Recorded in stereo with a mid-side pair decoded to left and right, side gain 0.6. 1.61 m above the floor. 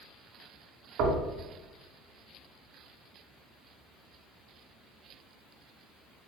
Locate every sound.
1.0 s knocking: 70° right, 1.1 m